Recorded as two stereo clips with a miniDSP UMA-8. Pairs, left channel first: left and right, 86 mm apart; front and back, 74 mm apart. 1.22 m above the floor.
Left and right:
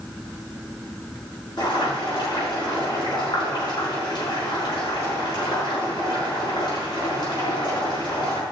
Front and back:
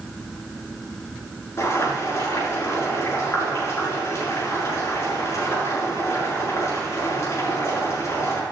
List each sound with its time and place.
1.6 s boiling: 50° left, 6.5 m